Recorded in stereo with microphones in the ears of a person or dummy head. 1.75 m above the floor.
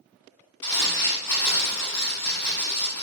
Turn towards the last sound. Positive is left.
turn(degrees=15)  # may be behind; listen again after turning